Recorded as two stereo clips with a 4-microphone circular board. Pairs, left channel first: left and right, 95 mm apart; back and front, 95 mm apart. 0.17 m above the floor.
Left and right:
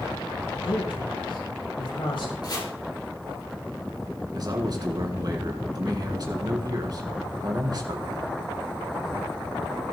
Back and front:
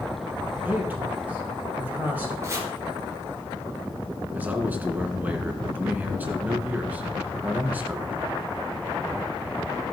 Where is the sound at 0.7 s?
70° left, 4.5 m.